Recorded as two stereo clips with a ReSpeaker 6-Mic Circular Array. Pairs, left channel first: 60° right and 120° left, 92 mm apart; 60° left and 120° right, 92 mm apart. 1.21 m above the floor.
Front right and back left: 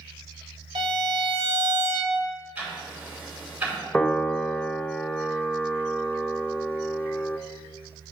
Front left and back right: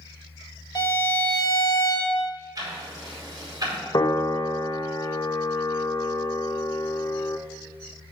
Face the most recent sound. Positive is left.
turn(degrees=20)